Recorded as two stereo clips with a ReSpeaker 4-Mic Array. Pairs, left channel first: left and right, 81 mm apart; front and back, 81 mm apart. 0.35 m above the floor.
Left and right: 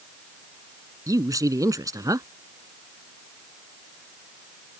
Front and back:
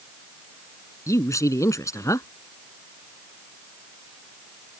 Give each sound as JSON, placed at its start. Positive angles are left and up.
{"t": 1.1, "sound": "a man speaking", "azimuth_deg": -45}